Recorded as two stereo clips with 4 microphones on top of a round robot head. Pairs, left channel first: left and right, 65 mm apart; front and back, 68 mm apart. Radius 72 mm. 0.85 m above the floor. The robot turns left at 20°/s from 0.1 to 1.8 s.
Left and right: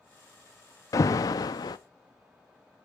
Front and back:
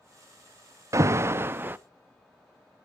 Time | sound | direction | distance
0.9 | an alarm | 135° left | 0.6 m